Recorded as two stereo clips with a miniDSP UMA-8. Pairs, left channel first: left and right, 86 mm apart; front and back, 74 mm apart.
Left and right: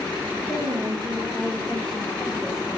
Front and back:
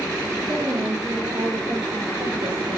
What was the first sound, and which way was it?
A woman speaking, 160° right.